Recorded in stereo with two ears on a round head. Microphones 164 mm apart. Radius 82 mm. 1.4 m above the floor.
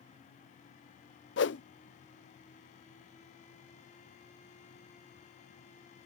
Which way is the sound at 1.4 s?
70° left (ahead or behind).